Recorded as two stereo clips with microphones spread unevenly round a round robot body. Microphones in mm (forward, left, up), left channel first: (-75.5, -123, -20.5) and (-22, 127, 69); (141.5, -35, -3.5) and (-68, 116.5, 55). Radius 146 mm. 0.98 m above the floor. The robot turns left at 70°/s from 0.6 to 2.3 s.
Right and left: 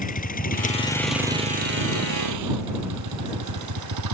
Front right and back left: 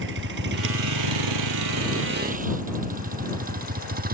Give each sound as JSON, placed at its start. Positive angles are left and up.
{"t": 0.0, "sound": "a vehicle", "azimuth_deg": -165}